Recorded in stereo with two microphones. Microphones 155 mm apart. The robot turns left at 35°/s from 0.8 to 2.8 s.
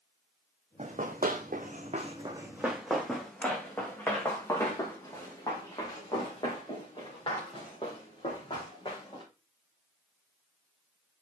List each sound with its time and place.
0.8 s running footsteps: 55° right (ahead or behind), 1.2 m; by 9.2 s 40° left (ahead or behind), 4.5 m